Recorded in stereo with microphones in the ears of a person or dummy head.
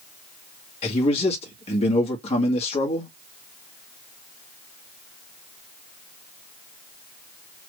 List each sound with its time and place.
0.8 s a man speaking: 40° left (ahead or behind), 2 m